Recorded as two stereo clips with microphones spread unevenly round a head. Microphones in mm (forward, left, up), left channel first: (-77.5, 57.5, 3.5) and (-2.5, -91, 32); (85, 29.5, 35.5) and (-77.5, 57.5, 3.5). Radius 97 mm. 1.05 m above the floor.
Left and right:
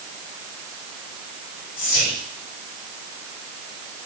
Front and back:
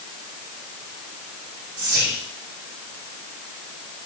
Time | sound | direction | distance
1.8 | whispering | 160° left | 6 m